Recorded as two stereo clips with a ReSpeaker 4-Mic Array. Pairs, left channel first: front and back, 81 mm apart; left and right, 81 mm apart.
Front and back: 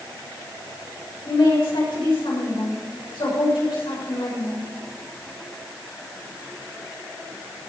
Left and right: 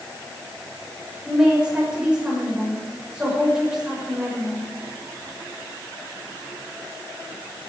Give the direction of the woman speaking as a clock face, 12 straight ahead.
12 o'clock.